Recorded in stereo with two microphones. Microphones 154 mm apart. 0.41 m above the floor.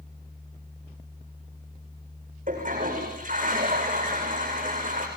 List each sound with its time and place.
2.5 s a toilet flushing: 60° right (ahead or behind), 8.5 m